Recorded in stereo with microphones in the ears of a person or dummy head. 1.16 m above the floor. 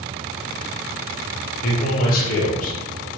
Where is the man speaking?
50° left (ahead or behind), 1.0 m.